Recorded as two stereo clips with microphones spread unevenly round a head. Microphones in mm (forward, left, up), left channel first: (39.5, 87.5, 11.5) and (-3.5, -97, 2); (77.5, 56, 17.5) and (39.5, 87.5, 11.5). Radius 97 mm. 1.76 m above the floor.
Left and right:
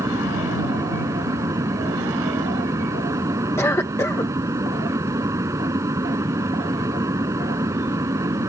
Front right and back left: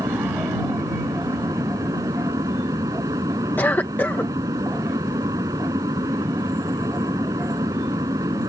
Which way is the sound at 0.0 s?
Straight behind.